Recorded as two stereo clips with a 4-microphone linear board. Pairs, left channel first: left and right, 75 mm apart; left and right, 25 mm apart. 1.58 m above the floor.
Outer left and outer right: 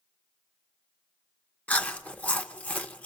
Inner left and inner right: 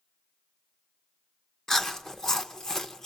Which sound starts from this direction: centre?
Chewing, at 1.7 s.